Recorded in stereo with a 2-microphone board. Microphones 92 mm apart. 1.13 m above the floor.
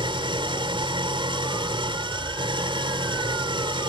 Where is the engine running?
85° right.